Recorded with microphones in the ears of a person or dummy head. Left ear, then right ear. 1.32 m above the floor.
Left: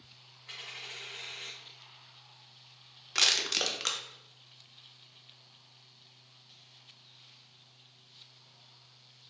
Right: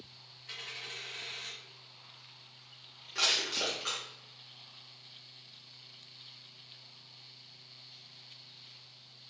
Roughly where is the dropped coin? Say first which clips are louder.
Right 1 dB; centre.